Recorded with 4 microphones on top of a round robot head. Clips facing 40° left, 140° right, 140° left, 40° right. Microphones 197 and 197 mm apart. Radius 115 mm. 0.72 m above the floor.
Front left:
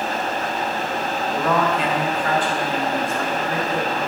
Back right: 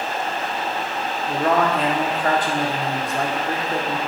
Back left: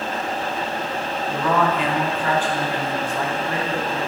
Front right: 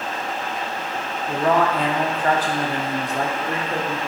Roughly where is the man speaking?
Right.